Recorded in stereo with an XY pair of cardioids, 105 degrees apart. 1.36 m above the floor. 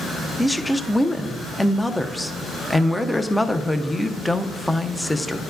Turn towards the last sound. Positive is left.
turn(degrees=5)